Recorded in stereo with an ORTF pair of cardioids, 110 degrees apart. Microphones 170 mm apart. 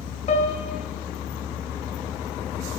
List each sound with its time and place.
0.3 s a piano: 45° left, 1.0 m